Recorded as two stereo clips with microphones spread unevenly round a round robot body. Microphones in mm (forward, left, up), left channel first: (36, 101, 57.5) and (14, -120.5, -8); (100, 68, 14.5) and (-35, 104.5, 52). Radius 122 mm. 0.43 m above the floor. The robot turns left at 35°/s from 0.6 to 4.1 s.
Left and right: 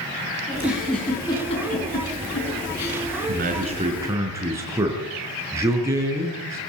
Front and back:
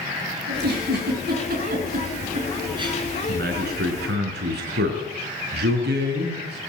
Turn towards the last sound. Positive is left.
turn(degrees=-170)